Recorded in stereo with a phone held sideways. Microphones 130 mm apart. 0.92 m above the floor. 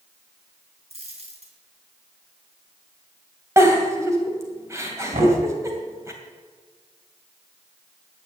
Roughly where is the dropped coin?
Right.